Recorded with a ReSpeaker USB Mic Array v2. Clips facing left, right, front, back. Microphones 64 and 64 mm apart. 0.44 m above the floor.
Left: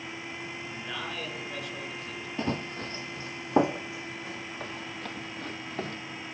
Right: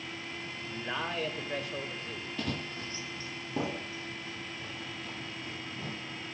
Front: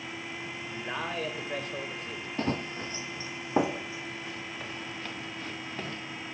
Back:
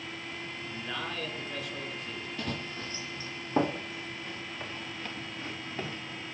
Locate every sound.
0.6 s a man speaking: 40° right, 1.7 m
2.4 s running footsteps: 35° left, 0.5 m; by 6.0 s 95° left, 2.5 m